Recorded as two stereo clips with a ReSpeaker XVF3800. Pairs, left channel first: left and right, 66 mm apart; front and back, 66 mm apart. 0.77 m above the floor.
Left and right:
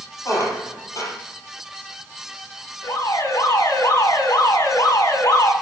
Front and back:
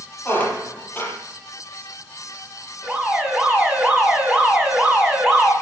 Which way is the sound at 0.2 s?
60° left.